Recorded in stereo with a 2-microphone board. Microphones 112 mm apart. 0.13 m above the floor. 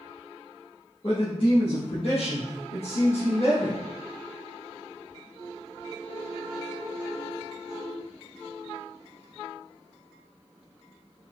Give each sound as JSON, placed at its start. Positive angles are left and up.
{"t": 1.0, "sound": "a man speaking", "side_deg": 50, "distance_m": 1.8}